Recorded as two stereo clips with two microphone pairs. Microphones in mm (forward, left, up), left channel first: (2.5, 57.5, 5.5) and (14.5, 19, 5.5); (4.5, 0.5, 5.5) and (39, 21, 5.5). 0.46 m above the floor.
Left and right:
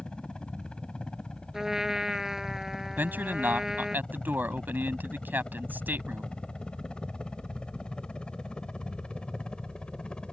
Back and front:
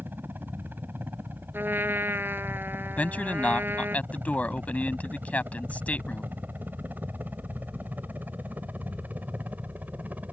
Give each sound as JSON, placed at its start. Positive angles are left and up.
{"t": 0.0, "sound": "a helicopter", "azimuth_deg": 45}
{"t": 1.5, "sound": "a trumpet", "azimuth_deg": 5}
{"t": 3.0, "sound": "a man speaking", "azimuth_deg": -100}